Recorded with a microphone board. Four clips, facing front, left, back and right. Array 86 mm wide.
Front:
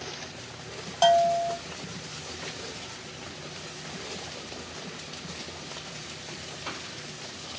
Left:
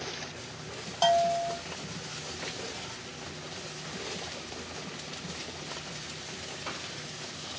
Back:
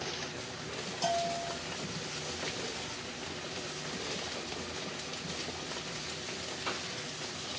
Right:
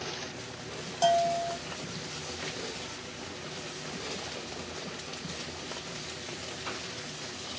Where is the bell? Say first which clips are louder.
Left 1 dB, front 12 dB; 20° left, 1.5 m.